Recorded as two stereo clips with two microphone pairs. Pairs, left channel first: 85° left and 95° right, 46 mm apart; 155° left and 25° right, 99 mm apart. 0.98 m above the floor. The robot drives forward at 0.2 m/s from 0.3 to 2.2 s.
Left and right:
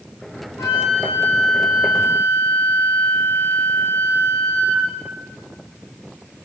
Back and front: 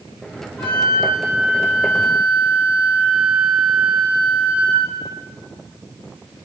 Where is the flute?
90° left, 0.8 m; by 4.9 s 110° left, 0.9 m.